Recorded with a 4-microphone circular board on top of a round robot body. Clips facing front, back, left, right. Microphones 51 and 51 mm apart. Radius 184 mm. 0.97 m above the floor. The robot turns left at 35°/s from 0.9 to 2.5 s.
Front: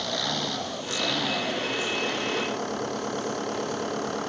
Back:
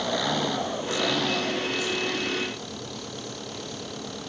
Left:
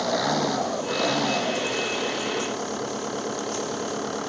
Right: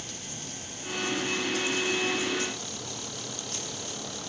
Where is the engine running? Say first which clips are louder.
Back 3 dB, left 19 dB; 100° left; by 4.3 s 45° left.